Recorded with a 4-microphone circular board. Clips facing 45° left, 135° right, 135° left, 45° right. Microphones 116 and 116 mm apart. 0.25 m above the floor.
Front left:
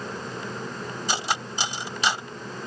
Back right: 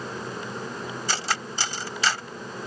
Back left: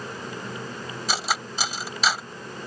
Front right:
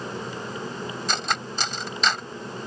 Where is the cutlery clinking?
65° left.